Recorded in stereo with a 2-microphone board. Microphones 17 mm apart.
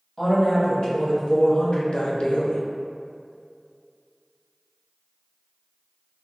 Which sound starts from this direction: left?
A woman speaking, at 0.2 s.